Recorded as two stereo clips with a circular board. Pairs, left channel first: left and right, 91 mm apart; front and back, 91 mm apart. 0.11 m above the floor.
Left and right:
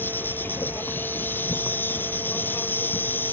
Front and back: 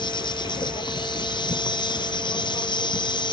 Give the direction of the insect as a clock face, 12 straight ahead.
11 o'clock.